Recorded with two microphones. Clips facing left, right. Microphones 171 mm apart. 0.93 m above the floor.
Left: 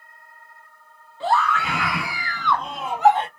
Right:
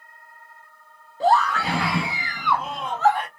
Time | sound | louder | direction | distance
1.2 | a scream | right 2 dB | 40° right (ahead or behind) | 1.2 m